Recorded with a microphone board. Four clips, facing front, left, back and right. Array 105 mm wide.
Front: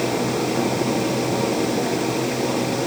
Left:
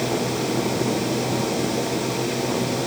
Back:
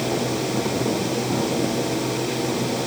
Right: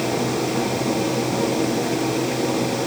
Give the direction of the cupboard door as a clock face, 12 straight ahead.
I don't hear a cupboard door.